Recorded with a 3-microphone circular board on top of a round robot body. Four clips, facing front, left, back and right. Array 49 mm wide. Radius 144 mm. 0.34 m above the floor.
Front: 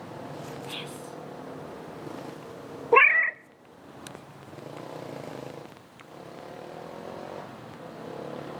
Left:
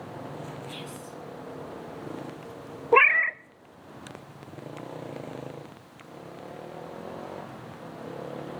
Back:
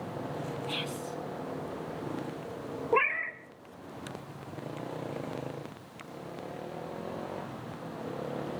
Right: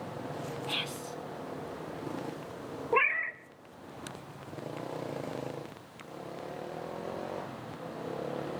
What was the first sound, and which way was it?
Whispering, 90° right.